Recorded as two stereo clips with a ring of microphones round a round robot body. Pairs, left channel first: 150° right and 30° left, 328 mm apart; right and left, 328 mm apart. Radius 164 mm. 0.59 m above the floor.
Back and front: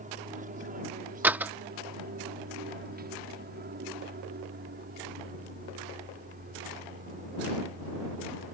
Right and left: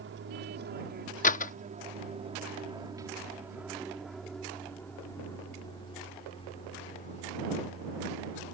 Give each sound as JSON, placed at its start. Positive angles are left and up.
{"t": 0.0, "sound": "an aircraft", "azimuth_deg": 80}
{"t": 1.2, "sound": "a door slam", "azimuth_deg": -50}